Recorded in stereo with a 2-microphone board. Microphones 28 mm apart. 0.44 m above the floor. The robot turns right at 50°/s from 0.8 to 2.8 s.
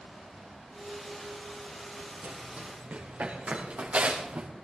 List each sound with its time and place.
2.2 s running footsteps: 85° right, 4.5 m; by 4.5 s 55° right (ahead or behind), 3 m